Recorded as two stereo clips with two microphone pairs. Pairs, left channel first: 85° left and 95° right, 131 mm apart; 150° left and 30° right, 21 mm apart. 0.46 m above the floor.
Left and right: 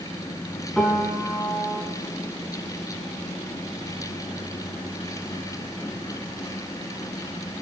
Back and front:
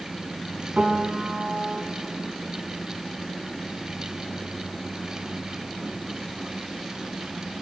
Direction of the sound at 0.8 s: Straight ahead.